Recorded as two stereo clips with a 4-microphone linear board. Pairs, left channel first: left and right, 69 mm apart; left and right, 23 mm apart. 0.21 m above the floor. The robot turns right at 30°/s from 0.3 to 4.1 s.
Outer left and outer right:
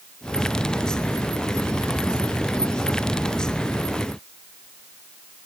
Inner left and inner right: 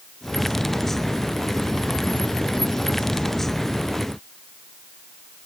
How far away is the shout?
I don't hear a shout.